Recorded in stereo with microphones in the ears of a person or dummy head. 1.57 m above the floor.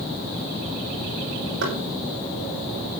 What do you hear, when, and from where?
1.6 s knocking: 80° right, 6 m